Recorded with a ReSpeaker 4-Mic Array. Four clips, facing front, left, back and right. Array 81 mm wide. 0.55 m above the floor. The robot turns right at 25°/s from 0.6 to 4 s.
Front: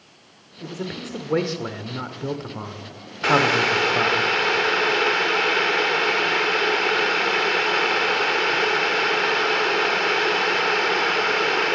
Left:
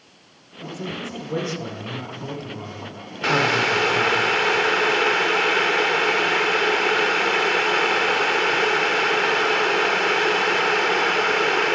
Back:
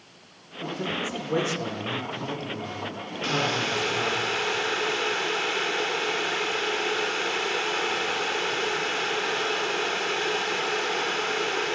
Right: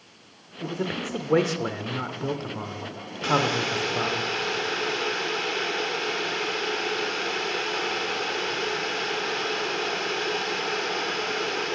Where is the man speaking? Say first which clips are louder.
Right 2 dB, back 1 dB; 85° right, 1.6 m; by 4.2 s straight ahead, 1.6 m.